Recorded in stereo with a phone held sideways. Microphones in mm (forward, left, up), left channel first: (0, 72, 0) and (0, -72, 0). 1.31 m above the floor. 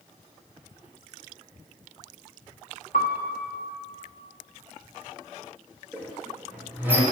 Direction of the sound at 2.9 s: 65° left (ahead or behind).